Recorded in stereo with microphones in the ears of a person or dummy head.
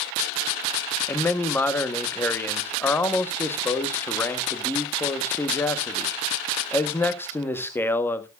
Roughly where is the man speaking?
Centre.